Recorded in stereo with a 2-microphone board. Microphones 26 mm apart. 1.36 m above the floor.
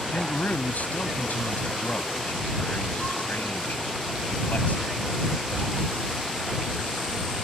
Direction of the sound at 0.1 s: 85° left.